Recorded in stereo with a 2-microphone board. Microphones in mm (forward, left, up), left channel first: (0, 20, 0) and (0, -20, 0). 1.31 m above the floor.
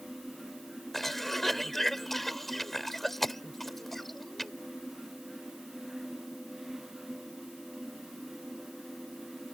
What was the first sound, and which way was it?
A cough, 5° left (ahead or behind).